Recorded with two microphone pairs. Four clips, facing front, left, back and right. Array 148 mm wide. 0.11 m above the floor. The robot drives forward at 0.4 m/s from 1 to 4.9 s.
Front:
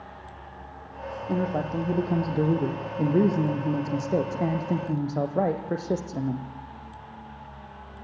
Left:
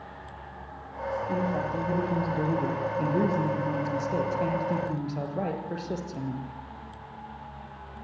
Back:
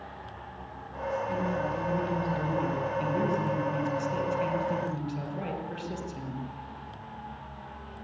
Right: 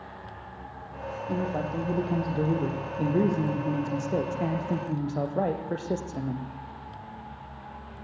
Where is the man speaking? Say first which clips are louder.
Right 1 dB, front 3 dB; 15° right, 4.5 m; by 6.5 s 20° right, 3 m.